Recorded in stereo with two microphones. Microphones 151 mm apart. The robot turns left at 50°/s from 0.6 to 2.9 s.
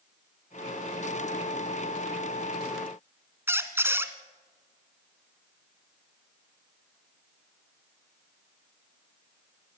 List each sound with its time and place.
3.5 s a squeak: 15° right (ahead or behind), 1.6 m